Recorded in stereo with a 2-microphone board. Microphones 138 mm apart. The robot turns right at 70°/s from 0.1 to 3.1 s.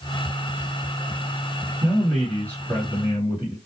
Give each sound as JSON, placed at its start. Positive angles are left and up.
{"t": 1.8, "sound": "a man speaking", "azimuth_deg": -30, "distance_m": 1.9}